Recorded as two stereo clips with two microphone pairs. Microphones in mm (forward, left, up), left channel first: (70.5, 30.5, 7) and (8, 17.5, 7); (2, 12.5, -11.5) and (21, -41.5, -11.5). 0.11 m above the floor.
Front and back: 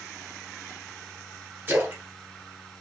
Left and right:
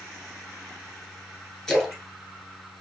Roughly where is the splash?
Behind.